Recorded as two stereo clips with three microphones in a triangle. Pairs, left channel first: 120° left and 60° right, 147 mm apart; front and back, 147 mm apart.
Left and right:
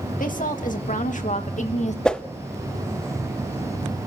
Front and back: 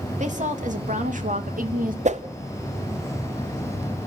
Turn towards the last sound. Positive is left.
turn(degrees=-155)